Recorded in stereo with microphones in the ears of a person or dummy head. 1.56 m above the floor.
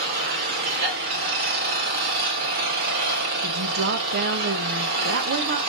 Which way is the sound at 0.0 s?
60° right (ahead or behind).